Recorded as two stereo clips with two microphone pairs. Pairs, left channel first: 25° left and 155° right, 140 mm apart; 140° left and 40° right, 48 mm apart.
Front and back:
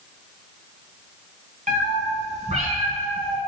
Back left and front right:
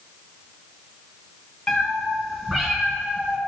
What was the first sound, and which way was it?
A cat meowing, 145° right.